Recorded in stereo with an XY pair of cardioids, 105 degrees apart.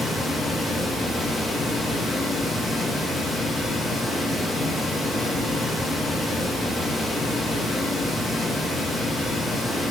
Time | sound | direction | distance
0.0 | running water | 50° left | 1.3 m